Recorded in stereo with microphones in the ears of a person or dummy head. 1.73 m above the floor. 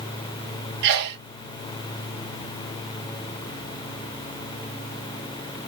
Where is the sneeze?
60° right (ahead or behind), 0.9 m.